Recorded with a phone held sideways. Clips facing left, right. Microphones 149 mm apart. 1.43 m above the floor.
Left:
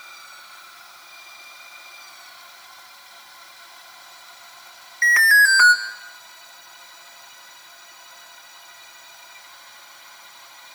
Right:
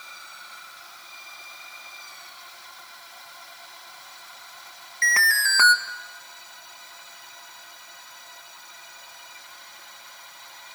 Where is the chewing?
I don't hear chewing.